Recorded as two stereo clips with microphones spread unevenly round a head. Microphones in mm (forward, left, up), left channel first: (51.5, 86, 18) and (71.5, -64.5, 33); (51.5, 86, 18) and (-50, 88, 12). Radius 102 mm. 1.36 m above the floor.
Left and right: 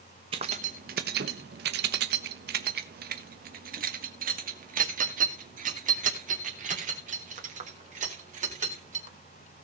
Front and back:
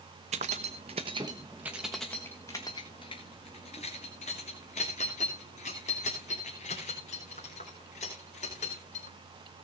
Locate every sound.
0.3 s keys jangling: 145° right, 0.9 m; by 9.2 s 40° right, 4.5 m